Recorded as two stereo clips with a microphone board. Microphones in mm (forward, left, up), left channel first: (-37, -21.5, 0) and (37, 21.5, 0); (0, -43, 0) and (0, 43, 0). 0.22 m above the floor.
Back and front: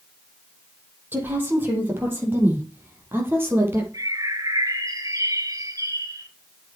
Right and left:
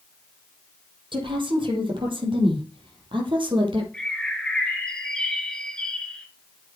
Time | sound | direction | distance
1.1 | a woman speaking | 95° left | 6.5 m
3.9 | a bird | 10° right | 2.5 m